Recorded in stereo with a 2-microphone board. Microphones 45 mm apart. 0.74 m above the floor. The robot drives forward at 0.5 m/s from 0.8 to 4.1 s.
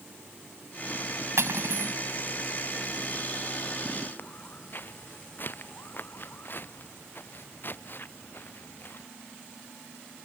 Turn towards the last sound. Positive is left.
turn(degrees=50)  # may be behind; listen again after turning